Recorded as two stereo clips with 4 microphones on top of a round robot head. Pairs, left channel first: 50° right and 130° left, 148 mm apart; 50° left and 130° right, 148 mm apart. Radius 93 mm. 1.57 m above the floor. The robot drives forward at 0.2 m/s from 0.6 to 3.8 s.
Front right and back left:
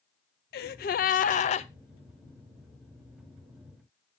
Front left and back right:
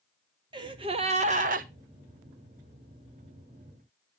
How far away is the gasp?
About 0.5 m.